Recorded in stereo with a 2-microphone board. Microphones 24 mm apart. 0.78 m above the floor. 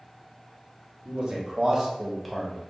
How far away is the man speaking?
About 1.0 m.